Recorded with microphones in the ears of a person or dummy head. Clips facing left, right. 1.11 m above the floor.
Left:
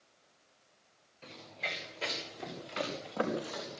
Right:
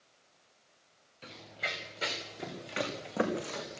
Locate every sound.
1.2 s running footsteps: 10° right (ahead or behind), 6.5 m; by 3.8 s 25° right (ahead or behind), 6 m